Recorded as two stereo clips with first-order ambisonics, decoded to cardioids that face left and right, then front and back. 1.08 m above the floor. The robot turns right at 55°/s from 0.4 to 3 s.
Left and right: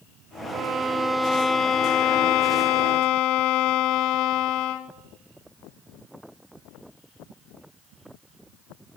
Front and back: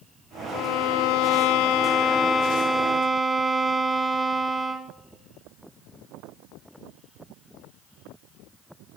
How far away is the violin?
About 0.7 m.